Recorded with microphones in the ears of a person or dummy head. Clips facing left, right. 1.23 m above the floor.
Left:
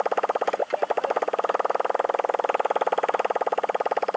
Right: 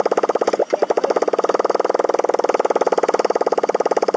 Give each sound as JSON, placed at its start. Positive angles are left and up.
{"t": 0.0, "sound": "a motorcycle", "side_deg": -50}